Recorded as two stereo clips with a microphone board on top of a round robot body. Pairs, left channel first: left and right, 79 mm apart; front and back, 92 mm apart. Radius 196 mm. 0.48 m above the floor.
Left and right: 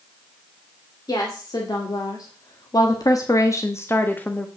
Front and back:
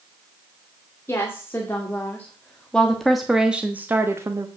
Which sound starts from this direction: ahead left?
A woman speaking, at 1.1 s.